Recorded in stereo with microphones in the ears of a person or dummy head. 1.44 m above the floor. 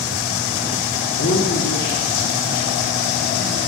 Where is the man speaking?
55° left (ahead or behind), 1.3 m.